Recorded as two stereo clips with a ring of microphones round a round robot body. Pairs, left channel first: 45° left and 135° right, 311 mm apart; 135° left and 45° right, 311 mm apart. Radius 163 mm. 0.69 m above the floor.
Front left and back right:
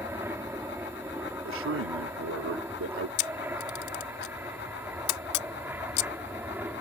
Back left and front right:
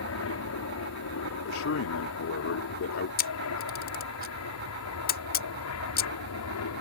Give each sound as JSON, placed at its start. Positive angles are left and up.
{"t": 0.0, "sound": "an aircraft", "azimuth_deg": 145}
{"t": 1.4, "sound": "a man speaking", "azimuth_deg": 180}
{"t": 3.2, "sound": "a camera shutter", "azimuth_deg": 75}